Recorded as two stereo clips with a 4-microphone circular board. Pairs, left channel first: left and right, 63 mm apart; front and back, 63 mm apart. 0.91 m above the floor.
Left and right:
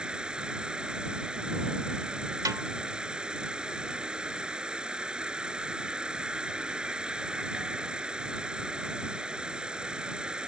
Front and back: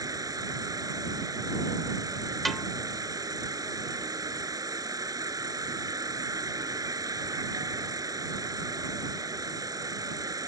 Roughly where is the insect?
Behind.